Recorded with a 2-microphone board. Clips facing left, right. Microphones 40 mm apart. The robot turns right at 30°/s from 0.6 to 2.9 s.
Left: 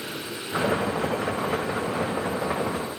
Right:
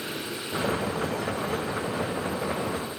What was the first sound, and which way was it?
Only background noise.